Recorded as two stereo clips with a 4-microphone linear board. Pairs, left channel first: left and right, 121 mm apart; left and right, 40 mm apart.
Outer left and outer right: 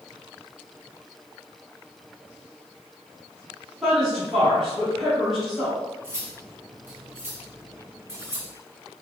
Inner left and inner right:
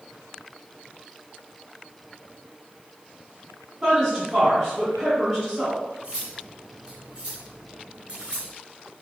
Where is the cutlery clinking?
25° right (ahead or behind), 1.7 m.